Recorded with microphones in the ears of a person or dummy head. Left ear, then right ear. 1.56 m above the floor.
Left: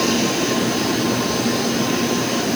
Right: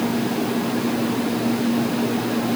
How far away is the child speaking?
I don't hear a child speaking.